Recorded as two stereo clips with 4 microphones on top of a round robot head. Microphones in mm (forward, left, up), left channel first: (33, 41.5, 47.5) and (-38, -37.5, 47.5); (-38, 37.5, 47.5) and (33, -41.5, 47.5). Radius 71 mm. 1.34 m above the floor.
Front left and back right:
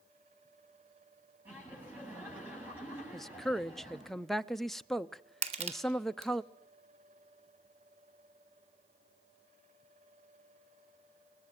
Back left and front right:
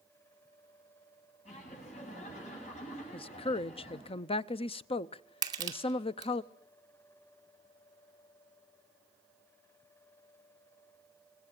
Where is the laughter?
150° left, 8.5 m.